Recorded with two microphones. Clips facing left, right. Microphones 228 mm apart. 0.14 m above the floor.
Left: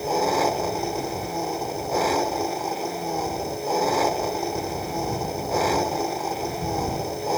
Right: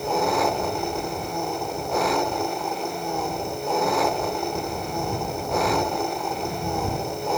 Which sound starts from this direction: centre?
An engine running, at 0.0 s.